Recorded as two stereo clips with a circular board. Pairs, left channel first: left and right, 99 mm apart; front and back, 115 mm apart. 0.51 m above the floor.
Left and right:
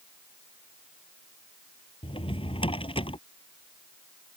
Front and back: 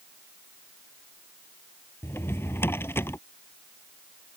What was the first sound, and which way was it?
A drawer, 70° left.